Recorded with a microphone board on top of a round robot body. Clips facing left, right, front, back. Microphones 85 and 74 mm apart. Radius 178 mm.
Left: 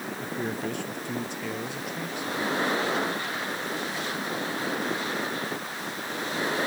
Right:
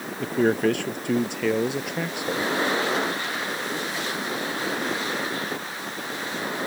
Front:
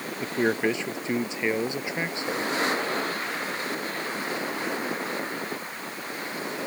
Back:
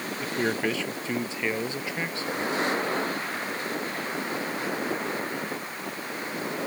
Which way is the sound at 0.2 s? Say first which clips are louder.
Right 12 dB, front 3 dB; 70° right.